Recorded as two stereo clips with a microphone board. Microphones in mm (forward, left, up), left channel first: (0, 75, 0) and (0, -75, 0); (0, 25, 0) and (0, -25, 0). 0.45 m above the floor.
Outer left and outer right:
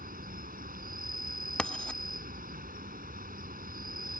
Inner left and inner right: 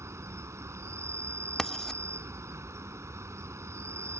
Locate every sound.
0.0 s an insect: 75° right (ahead or behind)
1.6 s writing: 10° left (ahead or behind)